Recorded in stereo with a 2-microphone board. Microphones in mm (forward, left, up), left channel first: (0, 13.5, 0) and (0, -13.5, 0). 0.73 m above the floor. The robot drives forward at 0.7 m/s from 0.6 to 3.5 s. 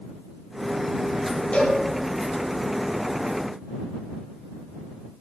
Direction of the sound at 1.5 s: 45° left (ahead or behind).